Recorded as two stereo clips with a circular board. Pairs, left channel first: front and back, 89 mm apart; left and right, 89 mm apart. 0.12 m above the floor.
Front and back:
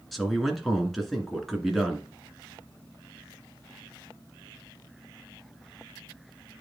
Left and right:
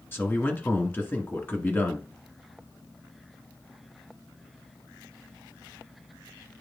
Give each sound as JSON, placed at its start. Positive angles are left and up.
{"t": 0.1, "sound": "a man speaking", "azimuth_deg": 90, "distance_m": 1.6}